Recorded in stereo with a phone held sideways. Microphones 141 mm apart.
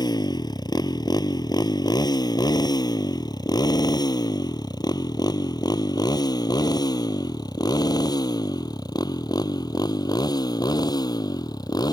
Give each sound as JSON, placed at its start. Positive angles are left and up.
{"t": 0.0, "sound": "a motorcycle", "side_deg": 30}